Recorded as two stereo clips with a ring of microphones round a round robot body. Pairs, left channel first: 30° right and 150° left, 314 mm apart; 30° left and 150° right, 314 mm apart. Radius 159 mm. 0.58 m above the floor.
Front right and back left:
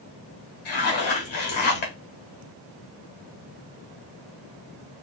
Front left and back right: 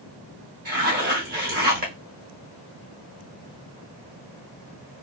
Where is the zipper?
90° right, 1.0 m.